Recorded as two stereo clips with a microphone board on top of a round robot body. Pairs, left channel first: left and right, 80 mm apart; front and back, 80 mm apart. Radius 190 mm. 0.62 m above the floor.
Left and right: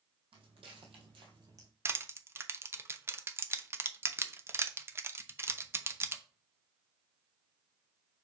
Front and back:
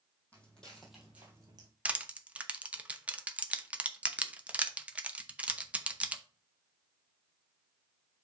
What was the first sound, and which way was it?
Footsteps, 75° right.